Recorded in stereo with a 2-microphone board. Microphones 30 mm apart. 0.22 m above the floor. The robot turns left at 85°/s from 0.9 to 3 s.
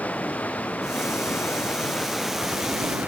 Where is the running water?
120° left; by 3.1 s 60° right.